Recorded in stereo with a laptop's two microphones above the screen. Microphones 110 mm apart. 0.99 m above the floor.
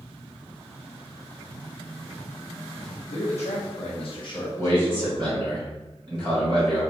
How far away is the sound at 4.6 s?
About 1.4 m.